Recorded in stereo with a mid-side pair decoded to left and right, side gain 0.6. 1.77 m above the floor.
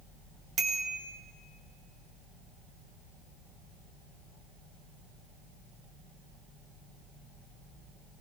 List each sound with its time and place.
0.6 s a bicycle bell: 45° right, 3.5 m